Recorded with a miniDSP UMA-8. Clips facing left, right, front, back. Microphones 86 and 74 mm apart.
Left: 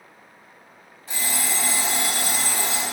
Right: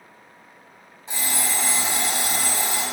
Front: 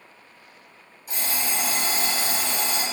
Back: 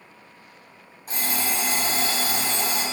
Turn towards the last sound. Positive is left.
turn(degrees=-155)